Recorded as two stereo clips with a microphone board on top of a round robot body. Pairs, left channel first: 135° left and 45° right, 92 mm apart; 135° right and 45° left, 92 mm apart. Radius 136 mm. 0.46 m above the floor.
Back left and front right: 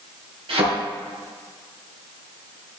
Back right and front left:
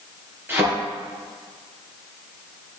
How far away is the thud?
About 4.5 m.